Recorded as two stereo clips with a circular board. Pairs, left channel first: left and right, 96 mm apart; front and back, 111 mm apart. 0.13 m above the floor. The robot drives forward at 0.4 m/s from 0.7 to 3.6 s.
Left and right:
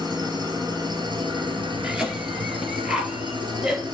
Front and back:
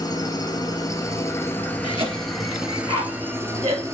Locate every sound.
0.0 s an engine running: 50° right, 1.2 m; by 3.9 s 120° right, 1.1 m
1.8 s a cough: 170° right, 2 m; by 3.8 s 175° right, 2.5 m